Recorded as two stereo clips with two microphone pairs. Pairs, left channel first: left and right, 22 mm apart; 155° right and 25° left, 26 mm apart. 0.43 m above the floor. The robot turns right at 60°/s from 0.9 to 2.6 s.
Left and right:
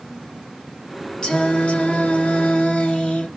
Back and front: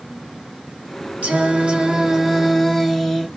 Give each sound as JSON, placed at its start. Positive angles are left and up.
{"t": 1.2, "sound": "singing", "azimuth_deg": 40, "distance_m": 0.9}